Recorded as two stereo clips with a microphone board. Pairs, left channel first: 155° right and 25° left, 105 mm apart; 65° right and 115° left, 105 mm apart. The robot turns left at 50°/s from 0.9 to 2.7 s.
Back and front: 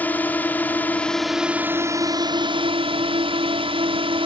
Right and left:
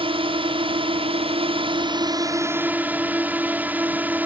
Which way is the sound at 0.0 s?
130° left.